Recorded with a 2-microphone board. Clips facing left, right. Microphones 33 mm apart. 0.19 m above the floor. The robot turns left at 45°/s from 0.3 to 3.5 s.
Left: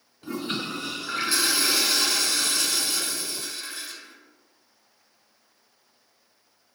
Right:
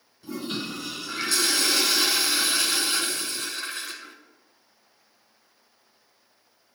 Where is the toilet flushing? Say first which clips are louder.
Left 2 dB; 70° left, 1.0 m; by 4.2 s 75° right, 1.0 m.